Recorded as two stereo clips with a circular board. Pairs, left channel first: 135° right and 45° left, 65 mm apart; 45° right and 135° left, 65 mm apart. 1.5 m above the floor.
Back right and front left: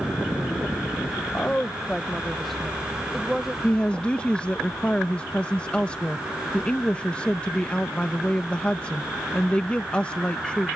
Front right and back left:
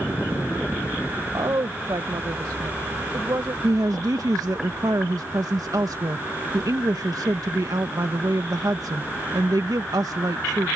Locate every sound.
1.3 s a woman speaking: 160° left; by 3.5 s 130° left
3.6 s a woman speaking: 155° left